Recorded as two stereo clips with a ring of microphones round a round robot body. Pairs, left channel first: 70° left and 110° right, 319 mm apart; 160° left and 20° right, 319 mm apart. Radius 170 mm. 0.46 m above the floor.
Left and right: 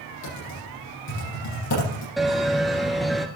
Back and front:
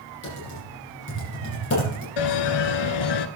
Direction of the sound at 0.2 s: 105° left.